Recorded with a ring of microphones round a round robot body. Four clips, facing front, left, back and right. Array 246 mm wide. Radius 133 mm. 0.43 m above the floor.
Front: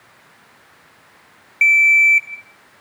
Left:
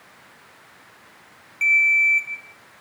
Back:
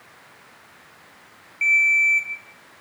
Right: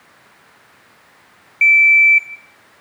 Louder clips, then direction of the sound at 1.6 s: Right 7 dB, front 6 dB; 15° left.